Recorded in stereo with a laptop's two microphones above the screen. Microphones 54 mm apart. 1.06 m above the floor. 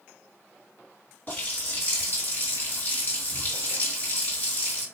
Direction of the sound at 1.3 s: 35° left (ahead or behind).